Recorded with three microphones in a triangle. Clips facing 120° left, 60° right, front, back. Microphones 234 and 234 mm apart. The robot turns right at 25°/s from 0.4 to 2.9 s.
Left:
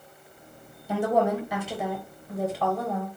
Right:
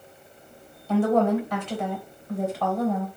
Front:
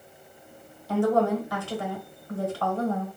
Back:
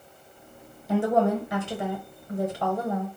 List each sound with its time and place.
0.9 s a woman speaking: 165° left, 0.9 m; by 3.1 s 140° right, 0.9 m